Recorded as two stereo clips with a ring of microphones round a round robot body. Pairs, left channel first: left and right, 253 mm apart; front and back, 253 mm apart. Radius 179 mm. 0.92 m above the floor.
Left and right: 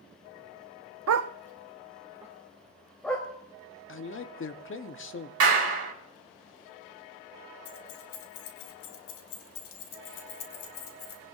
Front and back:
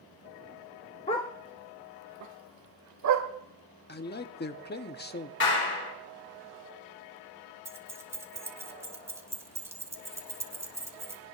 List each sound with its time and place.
1.1 s a dog barking: 70° right, 0.7 m; by 3.3 s 175° left, 2 m
3.9 s a man speaking: 50° left, 1.5 m
5.4 s a clap: 60° right, 3.5 m
7.7 s keys jangling: 100° left, 2.5 m